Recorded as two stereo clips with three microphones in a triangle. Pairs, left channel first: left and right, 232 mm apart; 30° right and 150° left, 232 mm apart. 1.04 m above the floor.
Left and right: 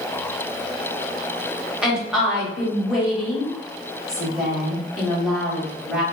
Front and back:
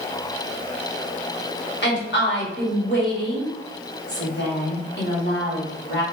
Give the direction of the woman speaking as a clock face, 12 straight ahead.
12 o'clock.